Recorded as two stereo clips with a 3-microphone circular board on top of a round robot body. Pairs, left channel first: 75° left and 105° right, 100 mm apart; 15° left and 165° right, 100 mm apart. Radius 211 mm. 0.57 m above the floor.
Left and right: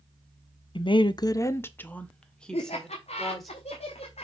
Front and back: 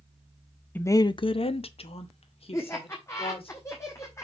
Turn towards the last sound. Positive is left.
turn(degrees=80)